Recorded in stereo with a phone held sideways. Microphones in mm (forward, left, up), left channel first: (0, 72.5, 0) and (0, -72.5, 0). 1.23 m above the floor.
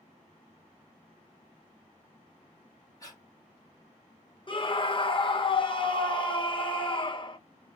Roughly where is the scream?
Left.